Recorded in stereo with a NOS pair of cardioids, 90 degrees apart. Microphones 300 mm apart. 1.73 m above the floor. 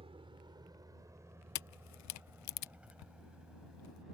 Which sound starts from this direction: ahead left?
A camera shutter, at 1.6 s.